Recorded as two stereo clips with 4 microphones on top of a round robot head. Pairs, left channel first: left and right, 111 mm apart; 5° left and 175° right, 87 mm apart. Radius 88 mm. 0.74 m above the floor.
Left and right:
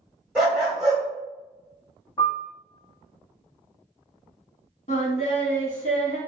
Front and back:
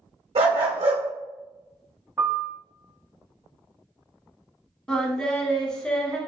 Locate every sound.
0.3 s a dog barking: 175° right, 1.5 m
2.2 s a piano: 140° left, 1.0 m
4.9 s singing: 85° left, 1.0 m